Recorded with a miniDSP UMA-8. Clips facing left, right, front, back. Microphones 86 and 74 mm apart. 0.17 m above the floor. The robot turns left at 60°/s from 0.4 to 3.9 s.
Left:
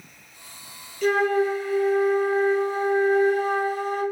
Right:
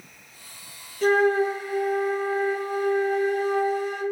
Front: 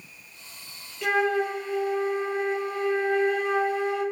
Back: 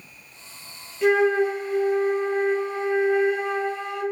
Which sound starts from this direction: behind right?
A flute, at 1.0 s.